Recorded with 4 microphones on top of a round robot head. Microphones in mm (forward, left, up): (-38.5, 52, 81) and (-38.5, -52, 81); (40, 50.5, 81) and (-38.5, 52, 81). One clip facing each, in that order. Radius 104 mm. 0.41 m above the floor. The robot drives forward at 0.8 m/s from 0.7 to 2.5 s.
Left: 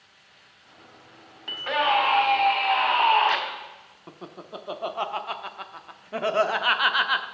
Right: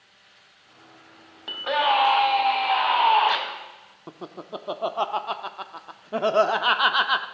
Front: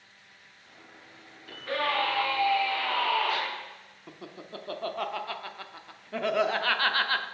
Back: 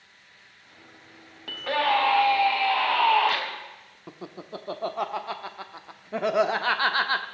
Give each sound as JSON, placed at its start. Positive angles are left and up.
{"t": 1.5, "sound": "a scream", "azimuth_deg": -160, "distance_m": 2.5}
{"t": 4.1, "sound": "laughter", "azimuth_deg": -130, "distance_m": 0.8}